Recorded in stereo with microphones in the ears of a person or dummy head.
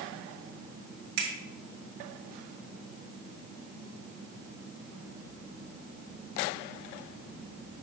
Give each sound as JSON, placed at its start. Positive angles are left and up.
{"t": 1.2, "sound": "a finger snap", "side_deg": -60, "distance_m": 1.9}